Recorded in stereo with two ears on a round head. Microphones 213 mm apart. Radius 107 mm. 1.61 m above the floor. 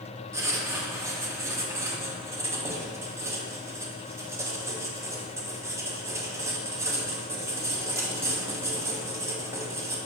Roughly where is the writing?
Centre.